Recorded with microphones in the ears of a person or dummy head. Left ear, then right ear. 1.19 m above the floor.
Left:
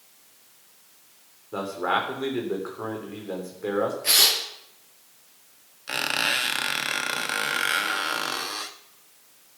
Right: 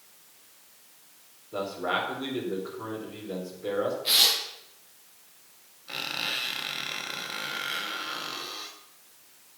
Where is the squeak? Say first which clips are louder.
Left 7 dB; 45° left (ahead or behind), 0.7 m.